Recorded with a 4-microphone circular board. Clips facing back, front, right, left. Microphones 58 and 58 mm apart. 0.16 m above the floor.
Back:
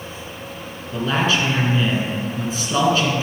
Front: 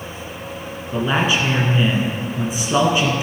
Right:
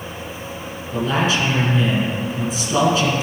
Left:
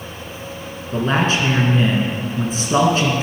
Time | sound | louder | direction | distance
0.9 | a man speaking | front 1 dB, left 1 dB | 65° left | 1.7 m